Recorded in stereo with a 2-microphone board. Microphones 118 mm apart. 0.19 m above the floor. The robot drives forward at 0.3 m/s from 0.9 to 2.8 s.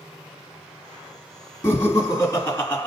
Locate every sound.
1.6 s laughter: 25° left (ahead or behind), 1.1 m; by 2.9 s 20° left (ahead or behind), 1.2 m